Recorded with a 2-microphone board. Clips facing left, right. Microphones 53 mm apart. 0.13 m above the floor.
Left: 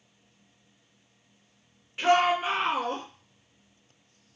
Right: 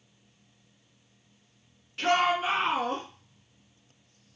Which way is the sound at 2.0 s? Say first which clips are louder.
Left 2 dB; 15° left (ahead or behind).